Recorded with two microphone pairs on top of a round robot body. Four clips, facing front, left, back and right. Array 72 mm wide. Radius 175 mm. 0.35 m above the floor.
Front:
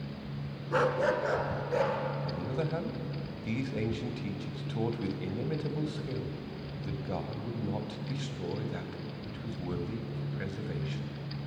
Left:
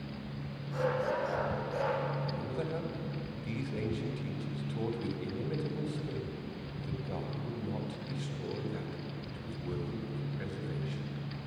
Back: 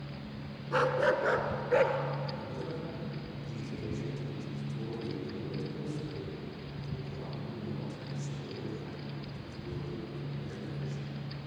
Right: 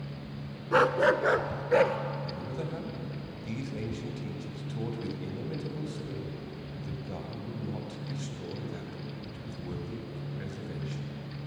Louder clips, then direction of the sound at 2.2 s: Even, front 5 dB; straight ahead.